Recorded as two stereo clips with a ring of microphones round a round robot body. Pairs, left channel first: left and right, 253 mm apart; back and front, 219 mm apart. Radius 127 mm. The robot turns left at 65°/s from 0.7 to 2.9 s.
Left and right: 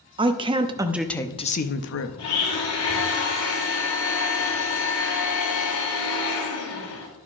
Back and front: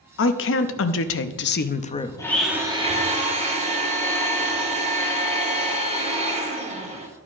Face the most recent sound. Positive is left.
turn(degrees=60)